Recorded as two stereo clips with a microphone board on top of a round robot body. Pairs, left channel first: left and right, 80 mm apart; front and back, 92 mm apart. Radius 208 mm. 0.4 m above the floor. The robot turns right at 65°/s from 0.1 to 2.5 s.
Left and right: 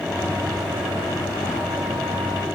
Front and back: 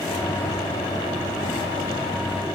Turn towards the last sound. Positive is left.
No sound to turn to.